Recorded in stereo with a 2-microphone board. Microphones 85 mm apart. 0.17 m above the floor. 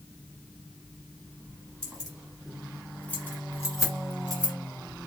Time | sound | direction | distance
1.8 | keys jangling | 15° right (ahead or behind) | 1.4 m